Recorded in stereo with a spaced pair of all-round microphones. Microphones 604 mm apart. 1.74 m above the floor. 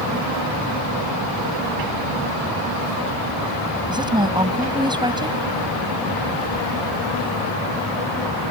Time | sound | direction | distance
3.9 | a woman speaking | 5° right (ahead or behind) | ?